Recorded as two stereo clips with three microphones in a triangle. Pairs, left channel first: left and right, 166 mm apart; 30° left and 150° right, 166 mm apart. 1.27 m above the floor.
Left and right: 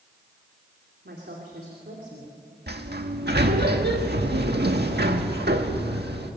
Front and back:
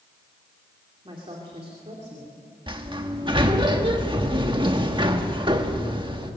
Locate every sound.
1.1 s a woman speaking: 90° right, 3 m; by 2.4 s 110° right, 3.5 m
2.7 s a sliding door: 90° right, 1.6 m